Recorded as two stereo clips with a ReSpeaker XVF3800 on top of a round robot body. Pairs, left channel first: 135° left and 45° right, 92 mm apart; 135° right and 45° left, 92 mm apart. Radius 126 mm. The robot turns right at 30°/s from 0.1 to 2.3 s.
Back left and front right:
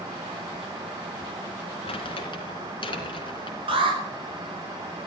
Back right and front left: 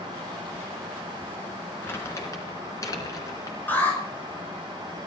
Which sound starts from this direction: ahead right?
An alarm, at 3.7 s.